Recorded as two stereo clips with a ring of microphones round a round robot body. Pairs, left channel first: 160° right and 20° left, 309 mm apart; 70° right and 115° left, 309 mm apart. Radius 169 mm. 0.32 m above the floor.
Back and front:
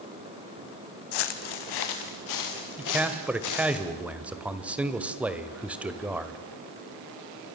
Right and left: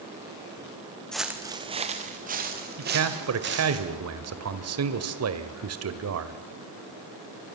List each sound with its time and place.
1.1 s footsteps: 155° right, 1.5 m; by 3.8 s 170° left, 5.5 m
2.8 s a man speaking: 105° left, 1.8 m